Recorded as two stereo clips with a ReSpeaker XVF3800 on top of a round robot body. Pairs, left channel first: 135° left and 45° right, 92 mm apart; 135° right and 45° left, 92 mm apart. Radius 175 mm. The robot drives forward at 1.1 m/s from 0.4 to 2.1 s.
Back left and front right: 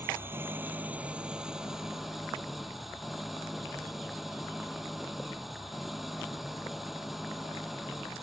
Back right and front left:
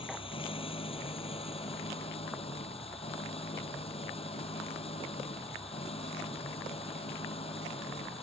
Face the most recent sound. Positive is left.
turn(degrees=-135)